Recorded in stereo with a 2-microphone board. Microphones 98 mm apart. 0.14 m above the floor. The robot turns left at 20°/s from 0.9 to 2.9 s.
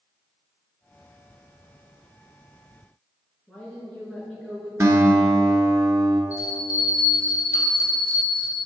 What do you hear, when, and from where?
3.5 s a woman speaking: 10° left (ahead or behind), 1.9 m
4.8 s a guitar: 30° right (ahead or behind), 0.9 m
6.3 s a bell: 35° left (ahead or behind), 1.9 m